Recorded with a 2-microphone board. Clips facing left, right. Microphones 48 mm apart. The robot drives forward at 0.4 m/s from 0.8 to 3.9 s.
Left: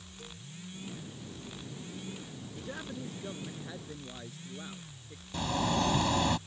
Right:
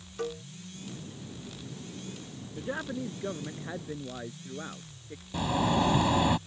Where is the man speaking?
30° right (ahead or behind); by 5.2 s 25° right (ahead or behind).